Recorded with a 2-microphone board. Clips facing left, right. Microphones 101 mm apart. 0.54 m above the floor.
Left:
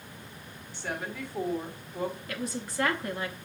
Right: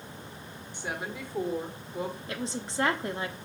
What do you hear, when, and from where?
0.7 s a woman speaking: 15° right (ahead or behind), 1.8 m
2.3 s a woman speaking: 25° right (ahead or behind), 0.9 m